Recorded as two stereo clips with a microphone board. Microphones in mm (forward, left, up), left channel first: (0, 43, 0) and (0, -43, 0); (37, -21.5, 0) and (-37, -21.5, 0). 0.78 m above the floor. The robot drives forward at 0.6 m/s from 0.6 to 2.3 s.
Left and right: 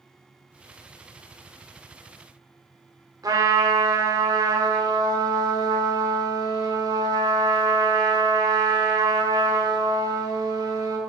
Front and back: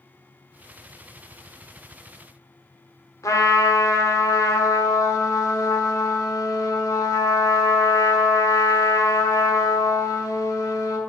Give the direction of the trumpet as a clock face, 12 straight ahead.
2 o'clock.